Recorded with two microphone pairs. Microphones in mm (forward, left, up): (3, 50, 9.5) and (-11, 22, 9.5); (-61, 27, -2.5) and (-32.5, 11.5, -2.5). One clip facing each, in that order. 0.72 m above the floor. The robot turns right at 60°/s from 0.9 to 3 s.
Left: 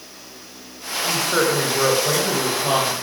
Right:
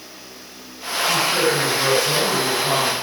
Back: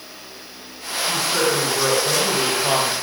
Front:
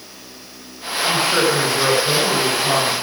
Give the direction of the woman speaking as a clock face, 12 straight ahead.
11 o'clock.